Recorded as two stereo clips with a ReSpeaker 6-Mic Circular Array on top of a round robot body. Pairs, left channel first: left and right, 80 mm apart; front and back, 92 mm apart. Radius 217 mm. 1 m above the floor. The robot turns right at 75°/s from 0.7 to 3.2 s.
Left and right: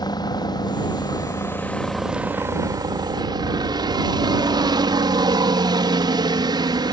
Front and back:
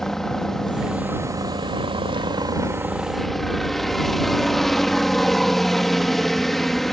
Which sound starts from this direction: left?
A helicopter, at 0.0 s.